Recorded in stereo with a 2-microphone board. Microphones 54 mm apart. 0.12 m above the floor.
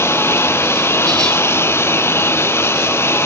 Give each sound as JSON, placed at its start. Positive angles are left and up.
{"t": 0.0, "sound": "a lawn mower", "side_deg": 55}